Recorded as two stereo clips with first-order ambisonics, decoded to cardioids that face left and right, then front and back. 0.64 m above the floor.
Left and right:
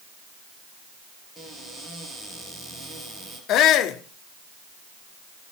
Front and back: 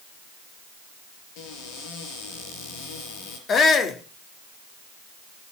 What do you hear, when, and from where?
1.4 s a cupboard door: 5° right, 4.5 m
3.5 s a shout: 55° left, 1.4 m